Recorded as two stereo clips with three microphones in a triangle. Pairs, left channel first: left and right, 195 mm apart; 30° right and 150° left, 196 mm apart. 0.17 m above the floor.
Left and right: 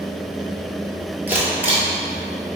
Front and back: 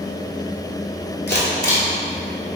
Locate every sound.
1.3 s a camera shutter: 10° right, 1.0 m